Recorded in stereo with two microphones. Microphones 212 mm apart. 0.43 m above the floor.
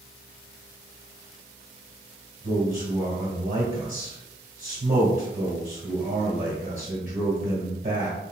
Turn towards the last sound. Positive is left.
turn(degrees=-40)  # may be behind; listen again after turning